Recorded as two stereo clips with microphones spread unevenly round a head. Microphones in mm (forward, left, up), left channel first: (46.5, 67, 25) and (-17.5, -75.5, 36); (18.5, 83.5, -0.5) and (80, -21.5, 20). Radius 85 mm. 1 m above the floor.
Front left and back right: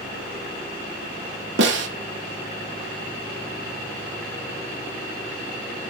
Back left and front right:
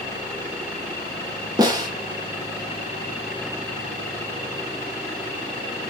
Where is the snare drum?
130° right, 2 m.